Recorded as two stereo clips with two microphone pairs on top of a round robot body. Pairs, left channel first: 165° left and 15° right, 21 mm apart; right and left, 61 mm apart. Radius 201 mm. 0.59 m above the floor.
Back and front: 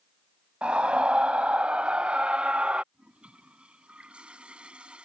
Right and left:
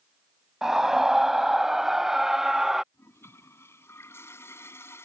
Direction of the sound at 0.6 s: 10° left.